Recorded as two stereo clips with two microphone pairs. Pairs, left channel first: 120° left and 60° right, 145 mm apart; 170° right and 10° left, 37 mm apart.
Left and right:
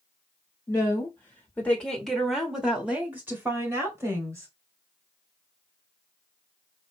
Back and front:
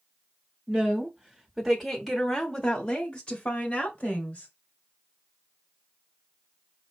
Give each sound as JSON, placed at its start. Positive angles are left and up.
{"t": 0.7, "sound": "a woman speaking", "azimuth_deg": 65, "distance_m": 1.5}